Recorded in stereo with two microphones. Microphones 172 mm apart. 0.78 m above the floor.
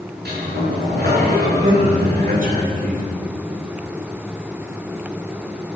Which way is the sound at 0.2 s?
75° right (ahead or behind).